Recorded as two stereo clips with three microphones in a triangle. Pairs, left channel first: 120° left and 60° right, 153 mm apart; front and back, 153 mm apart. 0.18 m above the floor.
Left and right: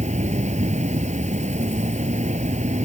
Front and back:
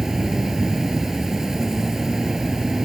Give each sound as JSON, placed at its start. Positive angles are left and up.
{"t": 0.0, "sound": "an insect", "azimuth_deg": -95}